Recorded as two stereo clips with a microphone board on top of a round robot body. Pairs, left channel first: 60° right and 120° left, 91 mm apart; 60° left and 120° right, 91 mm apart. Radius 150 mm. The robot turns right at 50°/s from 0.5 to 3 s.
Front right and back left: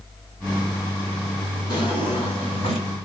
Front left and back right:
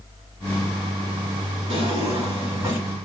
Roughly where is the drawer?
Right.